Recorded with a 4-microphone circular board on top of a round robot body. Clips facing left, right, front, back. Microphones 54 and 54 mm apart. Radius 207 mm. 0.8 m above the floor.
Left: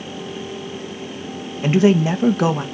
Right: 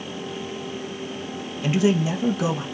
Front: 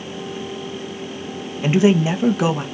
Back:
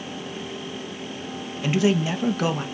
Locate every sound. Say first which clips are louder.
1.6 s a man speaking: left 6 dB, front 6 dB; 55° left, 1.6 m; by 2.6 s 80° left, 1.8 m